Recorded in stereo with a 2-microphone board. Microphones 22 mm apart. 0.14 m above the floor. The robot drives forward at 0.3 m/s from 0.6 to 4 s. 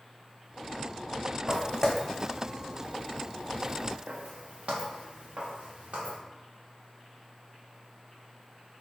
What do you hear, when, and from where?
1.5 s footsteps: 25° left (ahead or behind), 0.8 m; by 6.2 s 90° right, 2 m